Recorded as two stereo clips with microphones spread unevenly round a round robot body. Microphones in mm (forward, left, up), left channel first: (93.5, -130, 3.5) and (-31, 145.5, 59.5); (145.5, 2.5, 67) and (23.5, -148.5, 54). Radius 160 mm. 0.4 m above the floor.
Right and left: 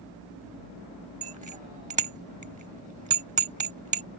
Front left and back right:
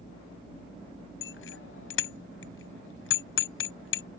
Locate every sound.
1.2 s a bicycle bell: 45° left